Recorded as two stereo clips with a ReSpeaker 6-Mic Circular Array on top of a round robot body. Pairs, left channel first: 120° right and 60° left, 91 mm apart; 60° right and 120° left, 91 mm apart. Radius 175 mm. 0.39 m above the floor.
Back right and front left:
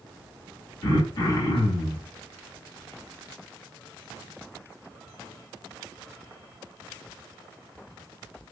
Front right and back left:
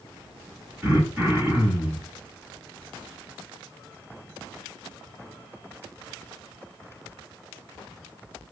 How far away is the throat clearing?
About 4 m.